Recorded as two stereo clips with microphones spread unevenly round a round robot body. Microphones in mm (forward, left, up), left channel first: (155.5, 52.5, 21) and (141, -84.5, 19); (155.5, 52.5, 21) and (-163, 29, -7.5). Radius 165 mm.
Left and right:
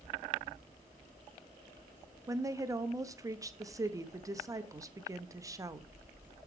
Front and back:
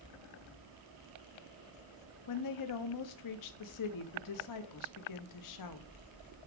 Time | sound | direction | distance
2.3 | a woman speaking | 30° right | 0.8 m